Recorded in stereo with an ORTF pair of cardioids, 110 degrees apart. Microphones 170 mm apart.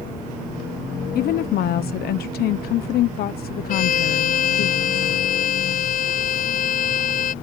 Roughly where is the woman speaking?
Ahead left.